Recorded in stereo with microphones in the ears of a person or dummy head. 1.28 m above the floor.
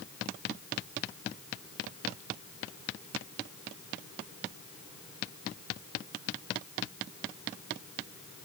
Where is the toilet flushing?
I don't hear a toilet flushing.